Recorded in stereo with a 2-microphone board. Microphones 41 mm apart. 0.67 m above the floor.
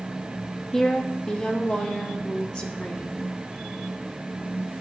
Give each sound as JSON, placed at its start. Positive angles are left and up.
{"t": 0.7, "sound": "a woman speaking", "side_deg": 10, "distance_m": 0.9}